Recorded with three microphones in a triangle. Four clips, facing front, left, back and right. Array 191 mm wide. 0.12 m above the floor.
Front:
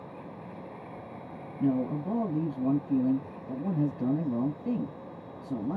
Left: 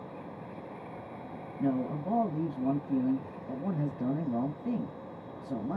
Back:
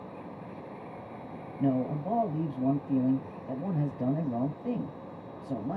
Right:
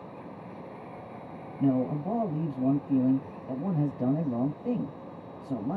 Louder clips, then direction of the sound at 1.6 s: Right 4 dB, front 1 dB; 140° right.